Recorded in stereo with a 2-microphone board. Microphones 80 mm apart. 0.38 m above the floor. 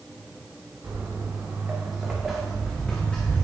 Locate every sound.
0.8 s footsteps: 35° right (ahead or behind), 1.5 m; by 3.4 s 30° left (ahead or behind), 1.1 m